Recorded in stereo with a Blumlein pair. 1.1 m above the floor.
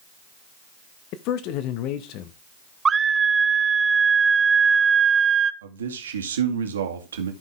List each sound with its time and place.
1.1 s a man speaking: 40° left, 0.9 m
2.9 s a scream: 15° right, 0.7 m
5.6 s a man speaking: 65° right, 1.9 m